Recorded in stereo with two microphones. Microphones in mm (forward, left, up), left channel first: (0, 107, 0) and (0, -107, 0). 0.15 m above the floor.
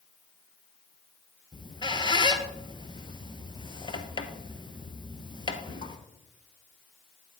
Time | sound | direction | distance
1.5 | a squeak | 25° left (ahead or behind) | 0.8 m